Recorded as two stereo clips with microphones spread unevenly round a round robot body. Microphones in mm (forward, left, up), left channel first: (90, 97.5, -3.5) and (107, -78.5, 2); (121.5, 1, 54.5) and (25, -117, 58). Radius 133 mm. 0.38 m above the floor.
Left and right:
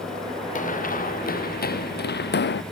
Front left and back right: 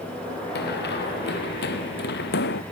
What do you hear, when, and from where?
0.6 s running footsteps: 50° left; by 2.6 s 80° left